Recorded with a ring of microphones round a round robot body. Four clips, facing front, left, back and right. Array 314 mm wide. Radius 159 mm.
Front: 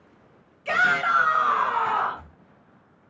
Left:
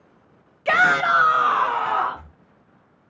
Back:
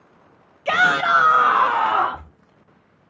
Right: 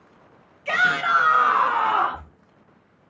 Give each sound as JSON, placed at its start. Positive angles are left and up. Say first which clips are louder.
{"t": 0.7, "sound": "a shout", "louder": "left 3 dB, back 4 dB", "azimuth_deg": 125, "distance_m": 0.7}